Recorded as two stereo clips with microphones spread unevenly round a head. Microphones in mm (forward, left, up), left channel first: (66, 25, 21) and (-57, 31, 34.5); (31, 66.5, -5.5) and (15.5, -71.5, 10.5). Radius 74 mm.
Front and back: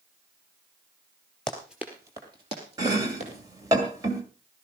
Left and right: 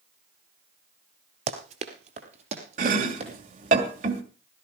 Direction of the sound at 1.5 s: 90° right.